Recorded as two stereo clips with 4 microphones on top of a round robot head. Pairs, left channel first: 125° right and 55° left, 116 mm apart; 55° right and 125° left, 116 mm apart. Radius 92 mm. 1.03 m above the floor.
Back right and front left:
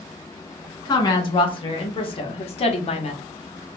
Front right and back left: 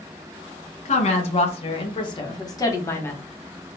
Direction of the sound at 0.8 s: 75° right.